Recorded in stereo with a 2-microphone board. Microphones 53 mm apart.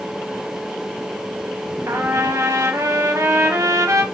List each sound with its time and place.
1.9 s a trumpet: 75° right (ahead or behind), 1.3 m